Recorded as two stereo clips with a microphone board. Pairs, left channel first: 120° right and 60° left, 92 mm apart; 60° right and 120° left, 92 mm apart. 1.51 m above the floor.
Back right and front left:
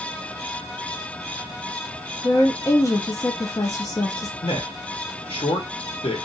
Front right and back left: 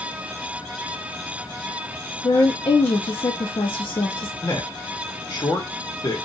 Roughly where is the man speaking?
Right.